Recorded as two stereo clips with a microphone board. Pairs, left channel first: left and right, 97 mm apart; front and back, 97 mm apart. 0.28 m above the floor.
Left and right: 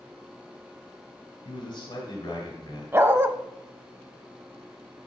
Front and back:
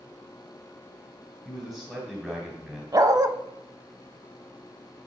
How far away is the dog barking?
About 0.5 m.